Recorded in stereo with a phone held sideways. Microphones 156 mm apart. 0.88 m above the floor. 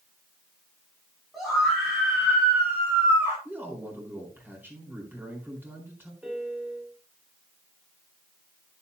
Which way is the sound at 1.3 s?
Centre (ahead or behind).